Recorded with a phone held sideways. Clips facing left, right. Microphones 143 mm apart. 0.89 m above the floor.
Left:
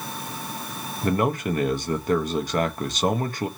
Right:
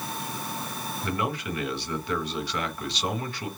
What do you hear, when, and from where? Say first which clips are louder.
1.0 s a man speaking: left 8 dB; 40° left (ahead or behind), 0.6 m